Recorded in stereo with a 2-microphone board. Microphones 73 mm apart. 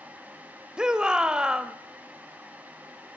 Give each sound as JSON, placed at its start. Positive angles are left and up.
{"t": 0.8, "sound": "a shout", "side_deg": -10, "distance_m": 1.2}